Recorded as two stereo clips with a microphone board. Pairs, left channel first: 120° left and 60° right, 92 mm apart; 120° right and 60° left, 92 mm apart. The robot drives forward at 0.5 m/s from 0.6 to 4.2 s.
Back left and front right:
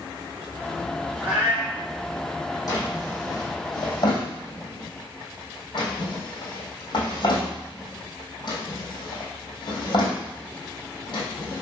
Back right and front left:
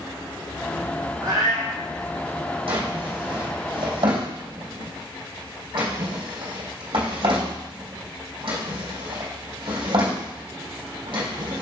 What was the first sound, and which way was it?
A cat meowing, 15° left.